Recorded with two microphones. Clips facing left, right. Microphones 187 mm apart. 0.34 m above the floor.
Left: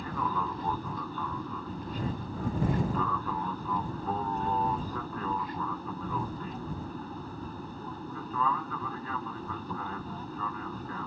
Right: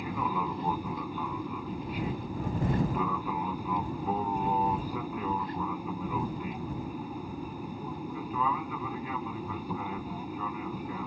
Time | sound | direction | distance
0.0 | an aircraft | 10° right (ahead or behind) | ?